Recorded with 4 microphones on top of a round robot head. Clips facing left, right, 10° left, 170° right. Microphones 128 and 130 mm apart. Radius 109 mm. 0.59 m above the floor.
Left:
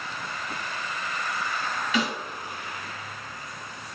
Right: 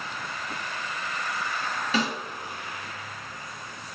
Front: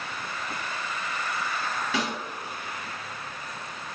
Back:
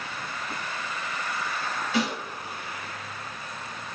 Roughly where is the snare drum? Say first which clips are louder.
Even, back 4 dB; ahead right.